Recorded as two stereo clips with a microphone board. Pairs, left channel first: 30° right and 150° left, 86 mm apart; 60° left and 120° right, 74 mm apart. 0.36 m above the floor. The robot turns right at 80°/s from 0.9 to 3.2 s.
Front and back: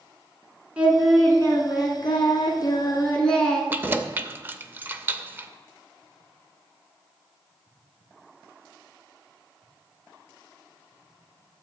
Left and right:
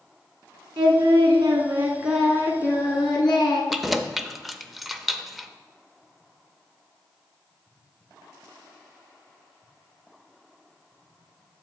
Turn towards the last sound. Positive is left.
turn(degrees=150)